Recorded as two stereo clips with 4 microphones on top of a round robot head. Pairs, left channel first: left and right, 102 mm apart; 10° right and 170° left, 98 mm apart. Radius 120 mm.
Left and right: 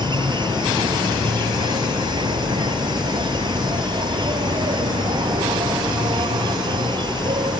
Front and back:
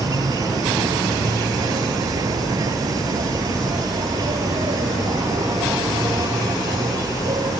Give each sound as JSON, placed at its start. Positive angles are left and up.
{"t": 0.0, "sound": "an insect", "azimuth_deg": -130}